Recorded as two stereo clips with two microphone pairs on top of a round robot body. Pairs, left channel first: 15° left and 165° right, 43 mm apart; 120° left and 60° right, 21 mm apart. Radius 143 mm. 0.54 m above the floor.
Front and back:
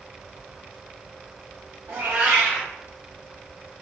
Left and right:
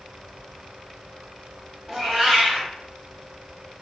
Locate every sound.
1.9 s a cat meowing: 125° right, 0.7 m